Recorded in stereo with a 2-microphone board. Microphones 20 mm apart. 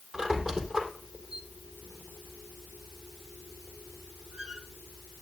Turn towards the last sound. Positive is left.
turn(degrees=-45)  # may be behind; listen again after turning